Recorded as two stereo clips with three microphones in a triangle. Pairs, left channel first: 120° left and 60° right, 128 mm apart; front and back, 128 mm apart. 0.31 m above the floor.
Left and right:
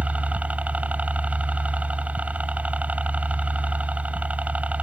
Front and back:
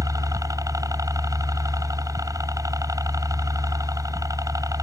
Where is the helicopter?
135° right.